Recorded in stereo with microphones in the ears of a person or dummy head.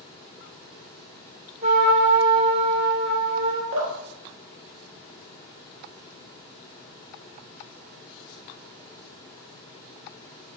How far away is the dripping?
About 1.1 m.